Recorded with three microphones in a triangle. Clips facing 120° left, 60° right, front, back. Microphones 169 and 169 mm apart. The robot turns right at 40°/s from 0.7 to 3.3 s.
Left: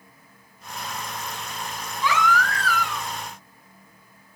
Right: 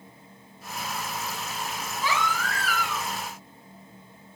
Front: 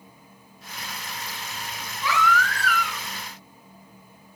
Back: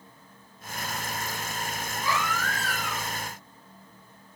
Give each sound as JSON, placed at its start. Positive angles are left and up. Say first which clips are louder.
{"t": 2.0, "sound": "a baby crying", "louder": "left 6 dB, front 6 dB", "azimuth_deg": -15, "distance_m": 5.0}